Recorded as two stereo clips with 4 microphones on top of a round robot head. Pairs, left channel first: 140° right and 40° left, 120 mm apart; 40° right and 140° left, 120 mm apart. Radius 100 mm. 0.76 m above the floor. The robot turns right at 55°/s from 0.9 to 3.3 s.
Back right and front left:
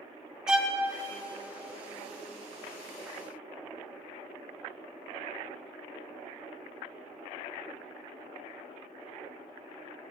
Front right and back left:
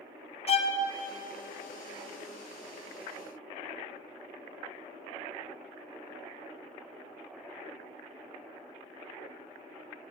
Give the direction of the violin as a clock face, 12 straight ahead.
1 o'clock.